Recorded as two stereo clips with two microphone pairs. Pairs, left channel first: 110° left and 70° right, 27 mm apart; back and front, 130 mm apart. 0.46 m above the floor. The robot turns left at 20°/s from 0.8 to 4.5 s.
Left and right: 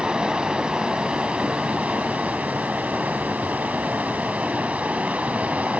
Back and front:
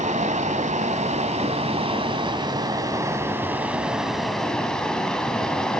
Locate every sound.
0.0 s running water: 20° right, 1.7 m; by 5.8 s 95° right, 1.7 m